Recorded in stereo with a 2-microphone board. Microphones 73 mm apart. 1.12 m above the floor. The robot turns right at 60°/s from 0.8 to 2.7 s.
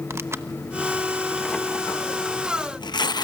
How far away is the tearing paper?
About 0.8 m.